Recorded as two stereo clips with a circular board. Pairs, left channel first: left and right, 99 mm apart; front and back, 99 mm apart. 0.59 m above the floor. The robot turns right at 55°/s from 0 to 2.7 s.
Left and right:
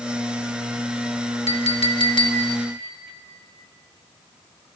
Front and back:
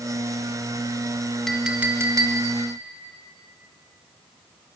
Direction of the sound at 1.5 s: 85° left.